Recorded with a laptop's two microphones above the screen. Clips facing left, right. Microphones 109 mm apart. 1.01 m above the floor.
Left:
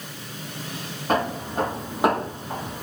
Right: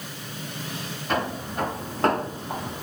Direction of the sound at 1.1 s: 45° left (ahead or behind).